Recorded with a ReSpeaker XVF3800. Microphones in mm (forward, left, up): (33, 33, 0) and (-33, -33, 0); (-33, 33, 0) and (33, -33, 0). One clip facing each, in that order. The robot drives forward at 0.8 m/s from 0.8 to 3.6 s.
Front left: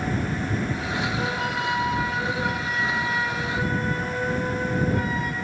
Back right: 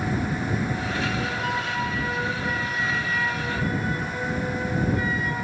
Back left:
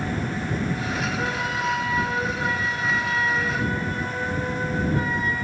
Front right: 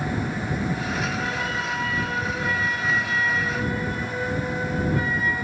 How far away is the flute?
About 5.5 m.